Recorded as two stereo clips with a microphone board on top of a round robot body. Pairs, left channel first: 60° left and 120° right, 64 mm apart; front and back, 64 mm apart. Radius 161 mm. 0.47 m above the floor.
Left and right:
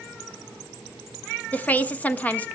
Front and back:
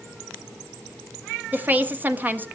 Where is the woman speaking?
125° left, 1.6 m.